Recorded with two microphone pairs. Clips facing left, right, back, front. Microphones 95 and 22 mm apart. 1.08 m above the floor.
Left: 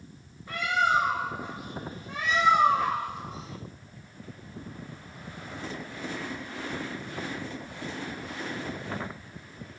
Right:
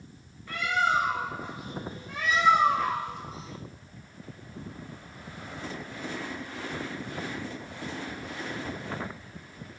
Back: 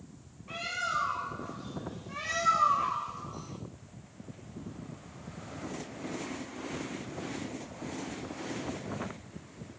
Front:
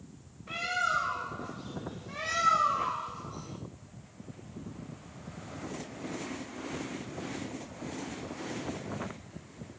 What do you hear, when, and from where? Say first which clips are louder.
0.5 s a bird: left 1 dB, front 3 dB; 15° left, 1.0 m